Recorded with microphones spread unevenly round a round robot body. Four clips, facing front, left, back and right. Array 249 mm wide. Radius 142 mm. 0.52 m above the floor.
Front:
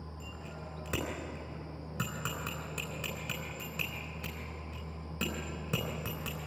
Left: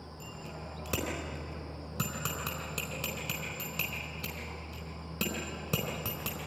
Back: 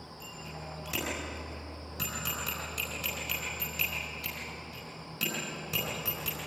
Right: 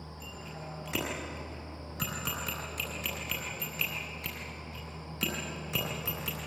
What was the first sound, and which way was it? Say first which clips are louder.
A bicycle bell: even, back 3 dB; 70° left.